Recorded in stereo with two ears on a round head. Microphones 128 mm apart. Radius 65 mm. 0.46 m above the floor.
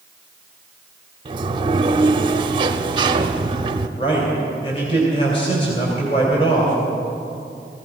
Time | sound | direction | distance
1.2 | a sliding door | 35° right (ahead or behind) | 0.7 m
4.0 | a man speaking | 35° left (ahead or behind) | 2.5 m